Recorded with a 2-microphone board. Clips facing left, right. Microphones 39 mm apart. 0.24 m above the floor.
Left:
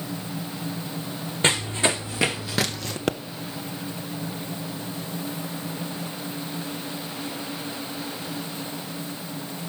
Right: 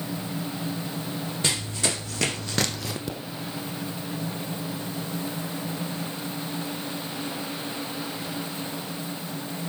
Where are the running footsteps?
35° left (ahead or behind), 1.3 m; by 3.0 s 10° right (ahead or behind), 1.0 m.